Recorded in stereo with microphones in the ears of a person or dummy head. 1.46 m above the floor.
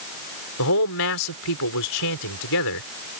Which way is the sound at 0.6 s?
80° left.